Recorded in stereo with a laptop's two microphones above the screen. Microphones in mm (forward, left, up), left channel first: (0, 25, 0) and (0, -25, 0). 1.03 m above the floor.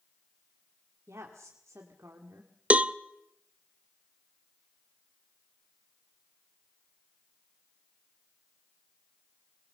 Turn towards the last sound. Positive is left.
turn(degrees=-25)  # may be behind; listen again after turning